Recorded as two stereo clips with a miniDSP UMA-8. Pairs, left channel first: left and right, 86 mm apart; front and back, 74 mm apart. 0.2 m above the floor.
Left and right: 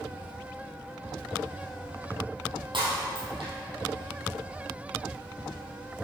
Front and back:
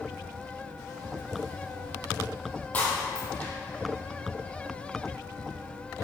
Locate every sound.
2.7 s breaking glass: 70° right, 3.5 m